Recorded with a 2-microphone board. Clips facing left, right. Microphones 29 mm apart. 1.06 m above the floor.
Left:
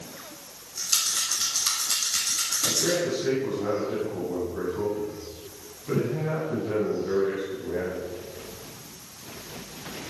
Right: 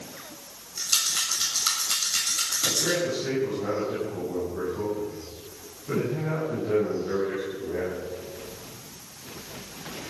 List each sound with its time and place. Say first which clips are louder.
0.8 s a rattle: right 1 dB; 25° right (ahead or behind), 6.5 m
2.6 s a man speaking: left 1 dB; 5° left (ahead or behind), 8.5 m